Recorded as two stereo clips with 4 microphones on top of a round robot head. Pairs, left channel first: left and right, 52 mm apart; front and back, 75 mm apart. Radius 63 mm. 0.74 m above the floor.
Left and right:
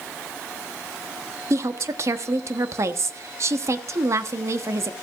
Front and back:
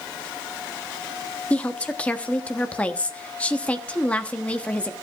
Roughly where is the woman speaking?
Right.